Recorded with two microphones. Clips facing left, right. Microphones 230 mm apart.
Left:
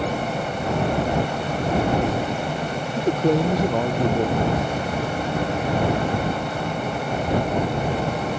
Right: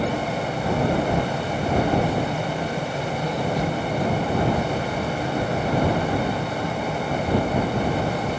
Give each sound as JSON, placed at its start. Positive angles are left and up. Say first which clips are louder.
{"t": 3.0, "sound": "a man speaking", "louder": "left 7 dB", "side_deg": 70}